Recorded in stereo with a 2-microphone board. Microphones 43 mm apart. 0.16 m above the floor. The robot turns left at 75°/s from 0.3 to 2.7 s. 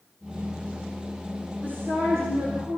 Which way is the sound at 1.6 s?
40° right.